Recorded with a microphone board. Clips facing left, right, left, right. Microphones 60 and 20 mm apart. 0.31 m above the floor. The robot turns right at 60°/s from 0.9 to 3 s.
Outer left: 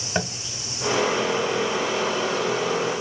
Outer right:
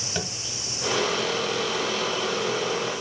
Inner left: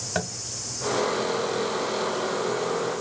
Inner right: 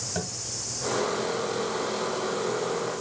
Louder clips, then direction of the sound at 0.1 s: Outer left 6 dB, inner left 6 dB; 35° left (ahead or behind).